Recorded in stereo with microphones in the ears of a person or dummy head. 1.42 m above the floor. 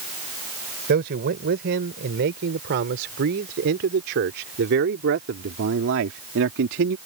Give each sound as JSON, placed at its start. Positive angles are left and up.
{"t": 0.9, "sound": "a man speaking", "side_deg": -60}